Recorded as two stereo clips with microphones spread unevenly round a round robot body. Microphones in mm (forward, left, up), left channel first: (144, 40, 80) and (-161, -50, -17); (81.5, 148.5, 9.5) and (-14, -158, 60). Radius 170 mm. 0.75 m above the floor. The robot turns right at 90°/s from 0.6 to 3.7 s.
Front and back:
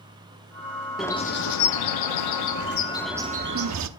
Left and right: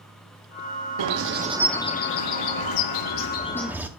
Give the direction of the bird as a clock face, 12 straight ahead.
3 o'clock.